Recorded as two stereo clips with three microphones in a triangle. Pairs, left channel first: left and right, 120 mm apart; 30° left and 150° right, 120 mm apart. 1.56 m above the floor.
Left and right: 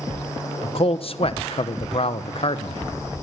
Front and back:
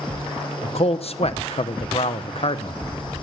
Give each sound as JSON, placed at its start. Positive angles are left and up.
{"t": 0.6, "sound": "a man speaking", "azimuth_deg": 55, "distance_m": 0.9}